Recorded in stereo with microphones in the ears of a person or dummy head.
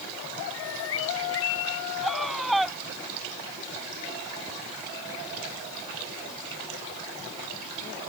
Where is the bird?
75° left (ahead or behind).